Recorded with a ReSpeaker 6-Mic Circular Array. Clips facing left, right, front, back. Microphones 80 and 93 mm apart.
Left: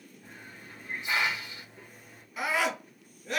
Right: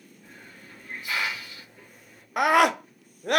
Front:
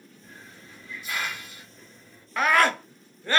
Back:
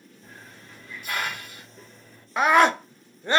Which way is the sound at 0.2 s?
155° left.